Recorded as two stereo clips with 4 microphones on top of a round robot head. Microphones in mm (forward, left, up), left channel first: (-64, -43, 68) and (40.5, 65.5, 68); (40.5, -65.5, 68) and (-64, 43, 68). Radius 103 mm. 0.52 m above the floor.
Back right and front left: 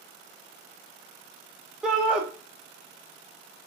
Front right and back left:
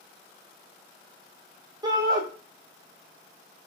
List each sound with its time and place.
1.8 s a shout: 125° left, 0.6 m